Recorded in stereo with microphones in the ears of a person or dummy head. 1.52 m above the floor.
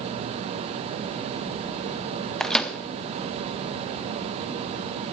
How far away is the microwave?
About 0.6 m.